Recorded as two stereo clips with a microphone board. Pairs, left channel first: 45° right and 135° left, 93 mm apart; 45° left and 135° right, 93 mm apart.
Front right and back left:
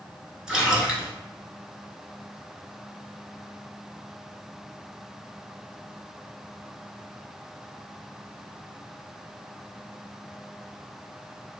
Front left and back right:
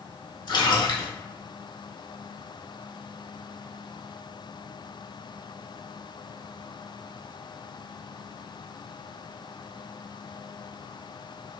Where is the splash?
55° left, 0.8 m.